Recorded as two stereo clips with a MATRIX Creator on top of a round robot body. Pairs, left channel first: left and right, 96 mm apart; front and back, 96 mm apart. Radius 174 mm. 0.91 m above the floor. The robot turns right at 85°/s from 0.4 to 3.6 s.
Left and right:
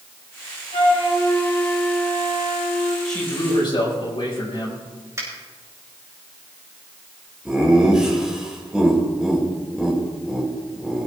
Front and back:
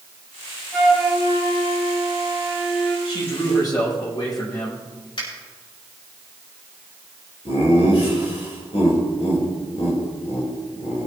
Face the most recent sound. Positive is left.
turn(degrees=-10)